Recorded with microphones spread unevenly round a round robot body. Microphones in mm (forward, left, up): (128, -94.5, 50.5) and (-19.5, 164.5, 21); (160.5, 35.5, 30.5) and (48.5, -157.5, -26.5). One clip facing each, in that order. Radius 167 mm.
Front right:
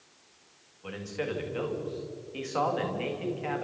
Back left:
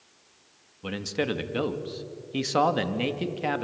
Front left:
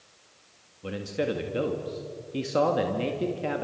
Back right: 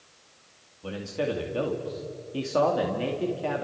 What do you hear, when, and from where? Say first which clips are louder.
0.8 s a man speaking: back left 5 dB, front left 1 dB; 140° left, 2.0 m